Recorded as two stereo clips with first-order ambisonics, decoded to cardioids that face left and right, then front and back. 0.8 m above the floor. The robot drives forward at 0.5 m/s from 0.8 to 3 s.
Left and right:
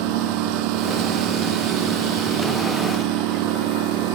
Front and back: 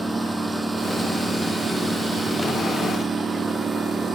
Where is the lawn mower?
100° right; by 4.2 s 110° right.